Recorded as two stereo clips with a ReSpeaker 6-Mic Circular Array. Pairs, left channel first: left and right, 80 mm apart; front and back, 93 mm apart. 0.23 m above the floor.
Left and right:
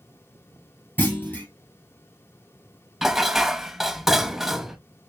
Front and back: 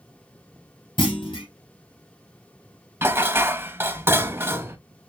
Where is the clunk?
25° left, 3 m.